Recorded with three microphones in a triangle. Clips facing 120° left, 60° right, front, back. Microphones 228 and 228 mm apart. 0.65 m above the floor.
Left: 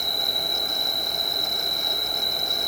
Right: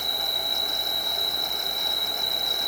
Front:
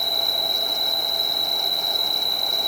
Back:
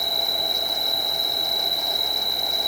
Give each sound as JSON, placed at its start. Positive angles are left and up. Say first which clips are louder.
{"t": 0.0, "sound": "an insect", "louder": "left 2 dB, even", "azimuth_deg": 45, "distance_m": 4.5}